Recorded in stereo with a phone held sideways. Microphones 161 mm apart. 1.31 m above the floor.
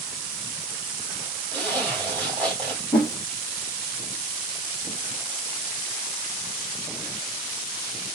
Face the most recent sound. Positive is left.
turn(degrees=10)  # may be behind; listen again after turning